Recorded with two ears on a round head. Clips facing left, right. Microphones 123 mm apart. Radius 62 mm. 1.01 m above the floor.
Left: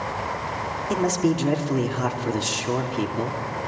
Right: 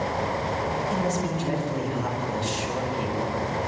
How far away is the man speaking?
About 3 m.